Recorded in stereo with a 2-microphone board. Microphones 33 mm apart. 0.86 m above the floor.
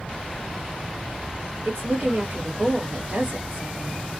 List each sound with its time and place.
1.6 s a woman speaking: 55° right (ahead or behind), 1.8 m